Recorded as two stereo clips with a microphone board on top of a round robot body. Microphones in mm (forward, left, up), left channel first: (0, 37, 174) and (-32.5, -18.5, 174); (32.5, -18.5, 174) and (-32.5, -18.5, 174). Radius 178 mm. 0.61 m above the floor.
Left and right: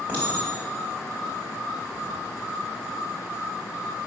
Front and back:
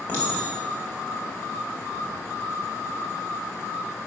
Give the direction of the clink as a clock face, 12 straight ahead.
2 o'clock.